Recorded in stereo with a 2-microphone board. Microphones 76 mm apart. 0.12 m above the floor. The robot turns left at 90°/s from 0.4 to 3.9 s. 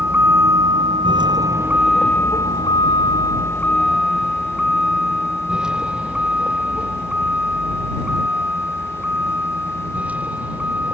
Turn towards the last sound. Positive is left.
turn(degrees=-20)  # may be behind; listen again after turning